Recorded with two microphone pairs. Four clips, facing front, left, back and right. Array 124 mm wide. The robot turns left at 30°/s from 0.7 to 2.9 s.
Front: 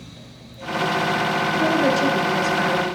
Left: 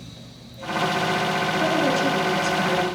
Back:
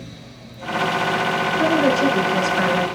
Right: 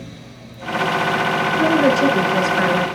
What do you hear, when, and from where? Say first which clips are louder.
1.6 s a woman speaking: right 7 dB, back 2 dB; 90° right, 5.5 m; by 2.9 s 125° right, 5.5 m